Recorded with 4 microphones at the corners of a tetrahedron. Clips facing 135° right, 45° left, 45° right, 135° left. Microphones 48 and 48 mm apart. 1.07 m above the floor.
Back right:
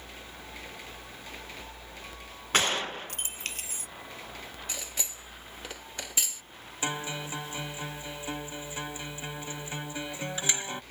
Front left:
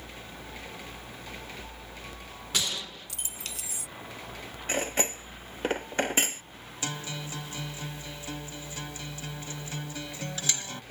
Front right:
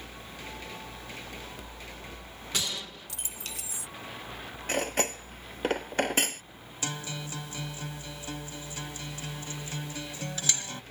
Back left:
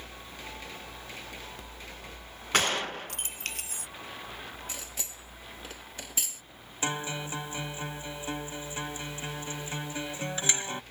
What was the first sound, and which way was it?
A gunshot, 175° left.